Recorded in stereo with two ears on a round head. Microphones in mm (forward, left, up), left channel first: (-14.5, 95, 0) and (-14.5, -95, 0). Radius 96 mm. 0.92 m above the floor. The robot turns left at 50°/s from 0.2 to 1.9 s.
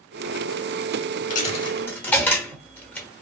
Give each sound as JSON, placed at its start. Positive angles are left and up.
{"t": 1.3, "sound": "a dropped coin", "side_deg": 35, "distance_m": 0.9}